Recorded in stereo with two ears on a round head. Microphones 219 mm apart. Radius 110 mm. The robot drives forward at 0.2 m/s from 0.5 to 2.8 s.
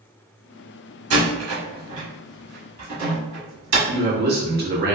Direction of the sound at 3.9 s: 45° right (ahead or behind).